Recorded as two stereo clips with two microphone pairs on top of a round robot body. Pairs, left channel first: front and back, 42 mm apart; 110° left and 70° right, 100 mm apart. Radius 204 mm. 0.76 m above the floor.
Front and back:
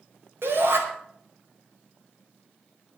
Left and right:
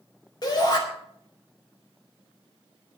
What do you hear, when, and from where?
0.4 s a shout: 155° left, 5 m